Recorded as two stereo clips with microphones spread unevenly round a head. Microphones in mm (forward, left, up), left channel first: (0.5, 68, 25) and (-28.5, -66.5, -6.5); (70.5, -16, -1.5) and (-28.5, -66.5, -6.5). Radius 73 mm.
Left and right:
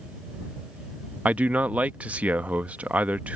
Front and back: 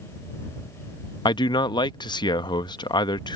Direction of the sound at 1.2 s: 25° right.